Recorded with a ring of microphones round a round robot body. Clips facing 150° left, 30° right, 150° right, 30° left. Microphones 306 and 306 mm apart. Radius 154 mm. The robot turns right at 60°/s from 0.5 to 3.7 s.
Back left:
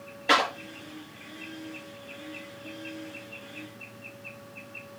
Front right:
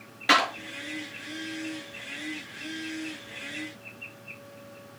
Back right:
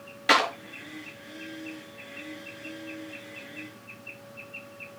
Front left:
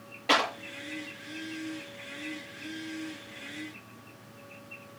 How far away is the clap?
About 4.5 m.